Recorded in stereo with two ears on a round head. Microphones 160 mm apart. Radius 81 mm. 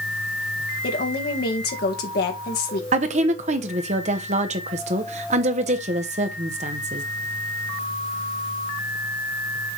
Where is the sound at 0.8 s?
55° left (ahead or behind), 1.9 m.